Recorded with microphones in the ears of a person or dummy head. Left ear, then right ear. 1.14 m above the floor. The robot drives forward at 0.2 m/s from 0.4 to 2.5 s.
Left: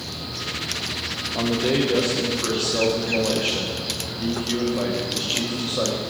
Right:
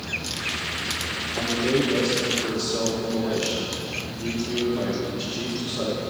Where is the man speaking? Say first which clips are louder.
Left 1 dB; 30° left (ahead or behind), 0.5 m; by 6.0 s 20° left (ahead or behind), 0.7 m.